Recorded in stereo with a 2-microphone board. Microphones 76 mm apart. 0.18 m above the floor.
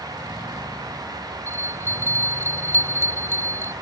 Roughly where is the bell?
Left.